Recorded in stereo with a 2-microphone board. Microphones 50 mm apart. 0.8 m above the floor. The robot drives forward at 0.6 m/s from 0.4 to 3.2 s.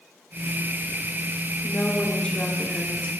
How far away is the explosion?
No explosion in this recording.